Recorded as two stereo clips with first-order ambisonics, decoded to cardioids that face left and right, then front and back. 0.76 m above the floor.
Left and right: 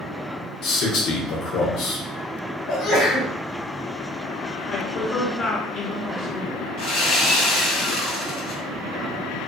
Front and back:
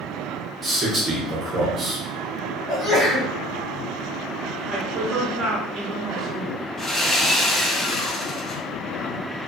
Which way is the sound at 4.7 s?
125° left.